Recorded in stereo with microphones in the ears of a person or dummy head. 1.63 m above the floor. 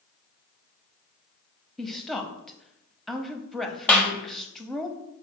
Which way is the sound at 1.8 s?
5° left (ahead or behind).